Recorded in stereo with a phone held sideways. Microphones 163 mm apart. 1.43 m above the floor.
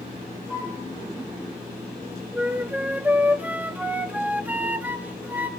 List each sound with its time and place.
0.5 s a flute: 20° right (ahead or behind), 7.5 m
2.3 s a flute: 10° right (ahead or behind), 0.9 m